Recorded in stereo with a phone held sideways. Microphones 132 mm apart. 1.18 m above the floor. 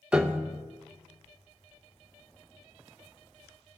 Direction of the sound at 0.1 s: 10° right (ahead or behind).